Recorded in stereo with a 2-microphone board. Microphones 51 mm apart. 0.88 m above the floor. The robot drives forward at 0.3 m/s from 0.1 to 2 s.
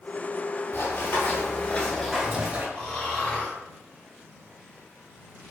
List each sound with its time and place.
0.7 s running footsteps: 60° left (ahead or behind), 1.6 m; by 2.6 s 35° right (ahead or behind), 1.0 m
2.8 s snoring: 15° left (ahead or behind), 1.3 m